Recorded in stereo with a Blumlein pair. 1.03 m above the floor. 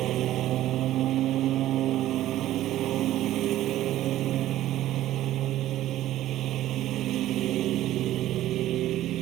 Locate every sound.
0.0 s a lawn mower: 35° right